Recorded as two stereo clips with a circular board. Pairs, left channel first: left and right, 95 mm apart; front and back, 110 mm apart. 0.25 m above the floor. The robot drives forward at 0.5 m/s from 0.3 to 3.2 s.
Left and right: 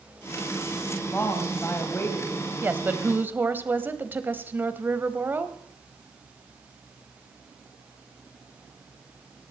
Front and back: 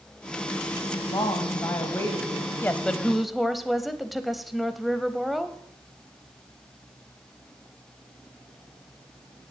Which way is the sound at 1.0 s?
30° left.